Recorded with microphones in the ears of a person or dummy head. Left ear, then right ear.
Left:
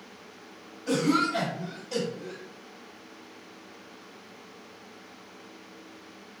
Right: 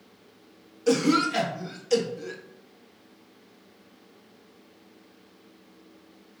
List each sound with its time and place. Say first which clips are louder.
0.9 s a cough: right 3 dB; 65° right (ahead or behind), 1.1 m